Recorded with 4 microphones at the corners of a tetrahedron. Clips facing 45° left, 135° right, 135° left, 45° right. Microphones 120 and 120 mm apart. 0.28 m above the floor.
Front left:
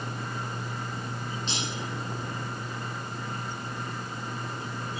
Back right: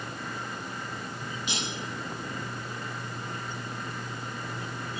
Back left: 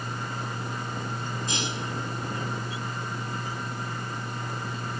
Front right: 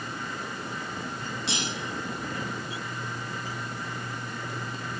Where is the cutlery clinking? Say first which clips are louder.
Even, even; 55° right, 6.5 m.